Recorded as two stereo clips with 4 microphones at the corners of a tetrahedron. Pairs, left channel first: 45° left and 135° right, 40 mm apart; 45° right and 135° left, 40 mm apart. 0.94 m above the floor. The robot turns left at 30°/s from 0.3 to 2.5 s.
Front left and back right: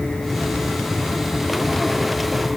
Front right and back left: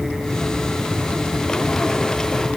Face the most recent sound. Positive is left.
No sound to turn to.